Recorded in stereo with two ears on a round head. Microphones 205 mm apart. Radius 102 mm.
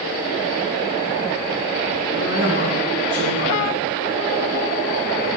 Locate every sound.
2.1 s a woman speaking: 40° right (ahead or behind), 10 m